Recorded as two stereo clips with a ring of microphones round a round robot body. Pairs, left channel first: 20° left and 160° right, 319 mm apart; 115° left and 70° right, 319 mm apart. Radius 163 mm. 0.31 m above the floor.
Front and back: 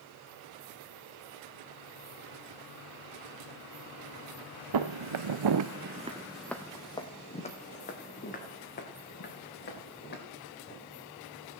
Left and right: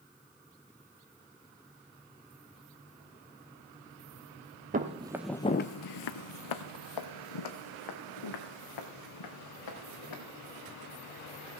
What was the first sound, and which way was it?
Footsteps, 135° right.